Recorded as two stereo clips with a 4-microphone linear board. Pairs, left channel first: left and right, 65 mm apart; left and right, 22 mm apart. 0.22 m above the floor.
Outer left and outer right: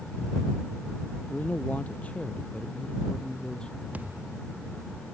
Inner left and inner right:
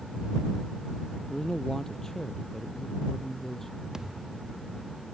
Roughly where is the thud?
Right.